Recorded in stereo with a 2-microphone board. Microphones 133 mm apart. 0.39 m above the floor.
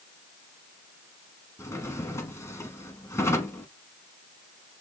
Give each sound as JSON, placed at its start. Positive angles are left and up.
{"t": 1.6, "sound": "a drawer", "side_deg": 20, "distance_m": 1.3}